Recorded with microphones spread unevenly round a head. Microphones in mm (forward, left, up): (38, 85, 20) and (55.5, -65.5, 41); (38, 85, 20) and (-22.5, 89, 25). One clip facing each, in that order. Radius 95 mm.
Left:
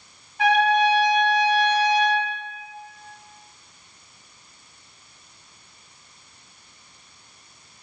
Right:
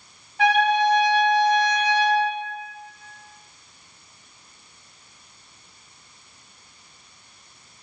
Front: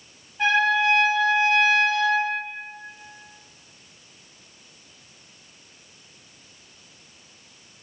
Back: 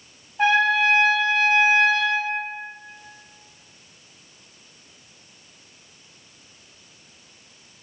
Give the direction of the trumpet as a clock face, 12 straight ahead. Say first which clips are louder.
Even, back 2 dB; 4 o'clock.